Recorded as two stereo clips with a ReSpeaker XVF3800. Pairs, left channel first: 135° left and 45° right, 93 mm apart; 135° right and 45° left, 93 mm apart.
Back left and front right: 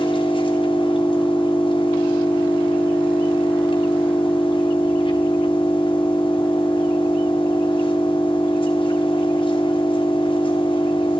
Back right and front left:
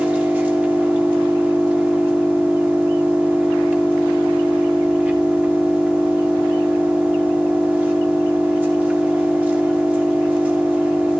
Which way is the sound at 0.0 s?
115° left.